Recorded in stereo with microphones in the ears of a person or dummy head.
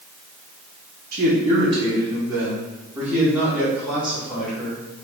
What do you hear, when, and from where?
1.1 s a man speaking: 50° right (ahead or behind), 0.6 m; by 4.8 s 5° right (ahead or behind), 3 m